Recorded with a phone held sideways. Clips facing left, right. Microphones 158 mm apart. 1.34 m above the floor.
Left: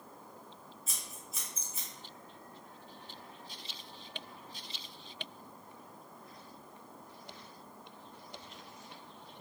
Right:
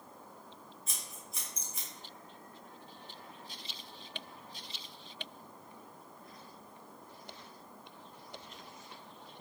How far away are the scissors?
About 1.0 m.